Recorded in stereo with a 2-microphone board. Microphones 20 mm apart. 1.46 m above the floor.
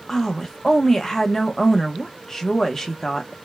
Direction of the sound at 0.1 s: 15° left (ahead or behind).